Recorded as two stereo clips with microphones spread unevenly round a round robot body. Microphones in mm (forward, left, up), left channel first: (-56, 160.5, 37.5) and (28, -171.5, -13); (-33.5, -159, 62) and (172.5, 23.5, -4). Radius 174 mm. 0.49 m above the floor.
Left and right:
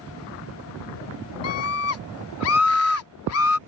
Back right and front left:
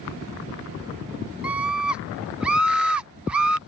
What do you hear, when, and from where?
1.4 s a scream: 100° left